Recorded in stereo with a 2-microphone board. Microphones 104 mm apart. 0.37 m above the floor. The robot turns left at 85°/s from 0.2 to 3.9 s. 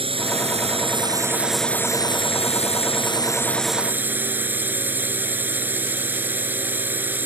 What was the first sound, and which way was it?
A drone, 65° right.